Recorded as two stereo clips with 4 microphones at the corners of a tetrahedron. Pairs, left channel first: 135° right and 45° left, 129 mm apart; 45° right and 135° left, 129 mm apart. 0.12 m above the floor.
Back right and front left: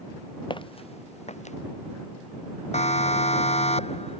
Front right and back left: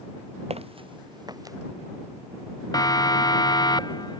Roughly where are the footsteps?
Behind.